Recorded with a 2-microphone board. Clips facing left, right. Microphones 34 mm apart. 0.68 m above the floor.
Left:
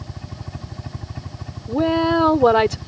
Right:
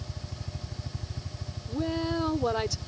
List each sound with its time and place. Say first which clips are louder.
0.0 s a helicopter: left 6 dB; 50° left (ahead or behind)
1.7 s a woman speaking: left 12 dB; 70° left (ahead or behind)